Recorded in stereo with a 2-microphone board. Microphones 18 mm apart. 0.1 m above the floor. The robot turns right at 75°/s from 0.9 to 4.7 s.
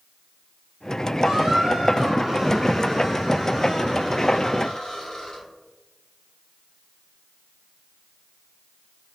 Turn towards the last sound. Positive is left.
turn(degrees=115)